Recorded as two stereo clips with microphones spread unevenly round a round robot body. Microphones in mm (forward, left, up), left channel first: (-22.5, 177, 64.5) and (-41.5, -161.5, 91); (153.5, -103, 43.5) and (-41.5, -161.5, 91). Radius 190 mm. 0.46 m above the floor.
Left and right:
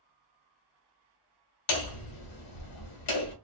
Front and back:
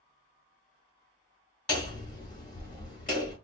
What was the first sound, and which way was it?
Hammering, 100° left.